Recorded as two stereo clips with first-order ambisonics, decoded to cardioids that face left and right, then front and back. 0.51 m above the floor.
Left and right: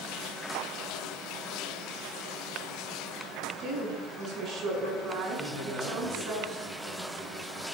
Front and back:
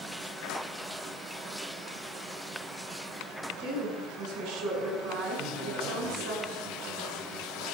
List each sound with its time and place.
3.6 s a woman speaking: 150° right, 5.5 m
5.4 s a man speaking: 145° right, 7 m